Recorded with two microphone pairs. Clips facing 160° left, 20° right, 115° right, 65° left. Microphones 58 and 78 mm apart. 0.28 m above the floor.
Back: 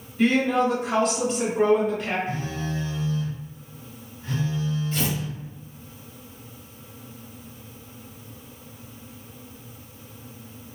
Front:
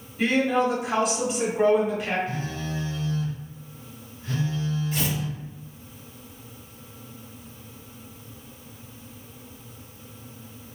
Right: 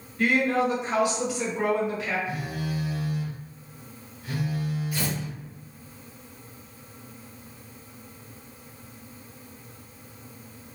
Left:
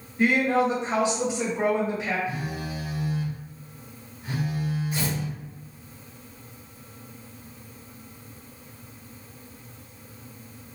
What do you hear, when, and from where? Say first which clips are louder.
0.2 s a woman speaking: back 1 dB, left 2 dB; 55° left, 1.5 m
2.3 s a phone buzzing: back 2 dB, even; 110° left, 1.9 m
4.9 s tearing paper: back 1 dB, left 1 dB; 55° left, 1.6 m